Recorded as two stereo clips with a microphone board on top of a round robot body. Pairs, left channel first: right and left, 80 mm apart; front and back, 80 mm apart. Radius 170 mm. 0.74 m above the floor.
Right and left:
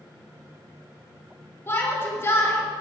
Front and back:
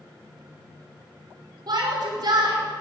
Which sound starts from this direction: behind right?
A shout, at 1.7 s.